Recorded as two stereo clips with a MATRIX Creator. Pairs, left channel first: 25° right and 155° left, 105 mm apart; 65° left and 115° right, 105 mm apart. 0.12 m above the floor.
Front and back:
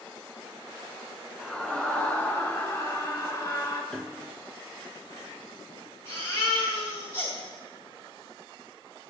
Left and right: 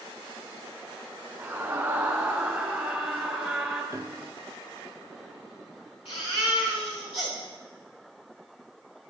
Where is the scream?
105° right, 1.6 m; by 3.8 s 25° right, 1.9 m.